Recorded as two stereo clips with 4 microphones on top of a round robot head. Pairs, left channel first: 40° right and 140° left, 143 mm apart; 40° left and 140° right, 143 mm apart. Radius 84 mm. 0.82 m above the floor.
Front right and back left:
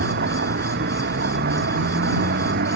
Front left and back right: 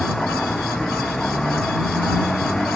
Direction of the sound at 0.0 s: 125° left.